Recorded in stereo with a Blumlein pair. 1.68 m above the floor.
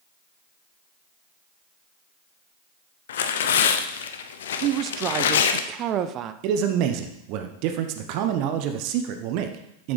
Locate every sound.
3.1 s tearing paper: 60° left, 0.7 m
4.6 s a woman speaking: 35° right, 0.5 m
6.4 s a man speaking: 40° right, 0.9 m